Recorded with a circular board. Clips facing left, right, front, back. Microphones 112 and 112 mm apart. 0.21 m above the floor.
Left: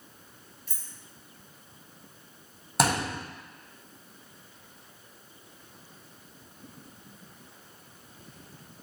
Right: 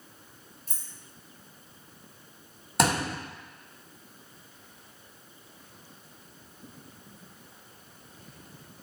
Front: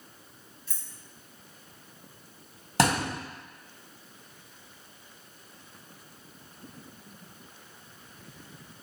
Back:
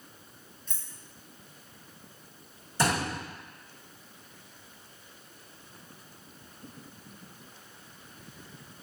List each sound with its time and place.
0.7 s keys jangling: 80° right, 0.8 m
2.8 s a thud: straight ahead, 1.5 m